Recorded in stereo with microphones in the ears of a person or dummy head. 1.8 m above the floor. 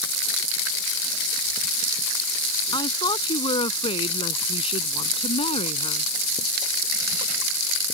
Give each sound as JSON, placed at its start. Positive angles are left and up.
{"t": 2.7, "sound": "a woman speaking", "side_deg": 25}